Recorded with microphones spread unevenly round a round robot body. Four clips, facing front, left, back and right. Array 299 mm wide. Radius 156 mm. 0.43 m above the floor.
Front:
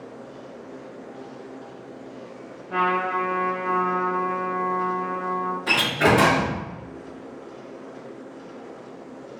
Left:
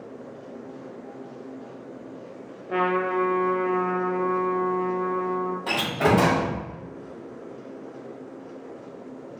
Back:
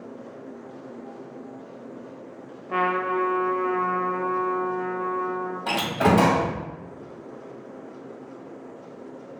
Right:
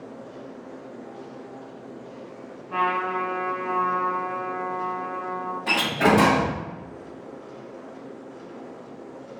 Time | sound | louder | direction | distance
2.7 | a trumpet | left 1 dB, front 1 dB | 110° left | 0.6 m
5.7 | a door slam | right 3 dB, even | 155° right | 1.8 m